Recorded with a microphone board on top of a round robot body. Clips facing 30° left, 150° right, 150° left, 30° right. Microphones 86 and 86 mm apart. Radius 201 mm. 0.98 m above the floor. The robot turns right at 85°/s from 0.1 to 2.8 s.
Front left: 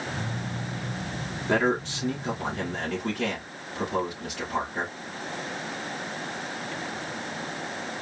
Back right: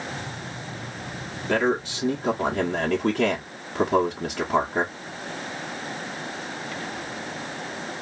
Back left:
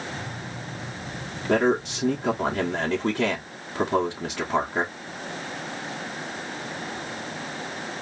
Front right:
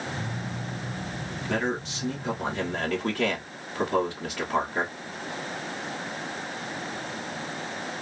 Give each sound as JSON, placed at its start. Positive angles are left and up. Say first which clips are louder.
{"t": 1.5, "sound": "a man speaking", "louder": "back right 1 dB, back left 8 dB", "azimuth_deg": 105, "distance_m": 1.1}